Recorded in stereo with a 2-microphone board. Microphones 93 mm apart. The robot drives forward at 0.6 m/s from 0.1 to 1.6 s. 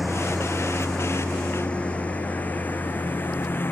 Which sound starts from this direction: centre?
A lawn mower, at 0.0 s.